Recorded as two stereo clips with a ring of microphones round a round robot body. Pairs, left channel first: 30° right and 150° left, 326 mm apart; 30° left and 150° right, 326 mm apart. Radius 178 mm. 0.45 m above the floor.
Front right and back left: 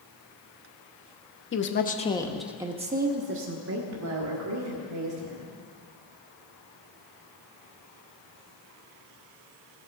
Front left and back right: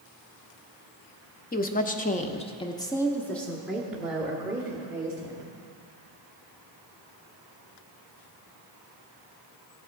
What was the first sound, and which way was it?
A woman speaking, 15° right.